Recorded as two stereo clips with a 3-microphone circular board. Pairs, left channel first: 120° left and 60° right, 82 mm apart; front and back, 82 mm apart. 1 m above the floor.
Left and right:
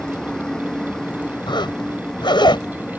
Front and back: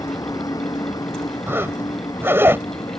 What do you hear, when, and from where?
0.0 s a vehicle: 40° left
1.5 s a zipper: 120° left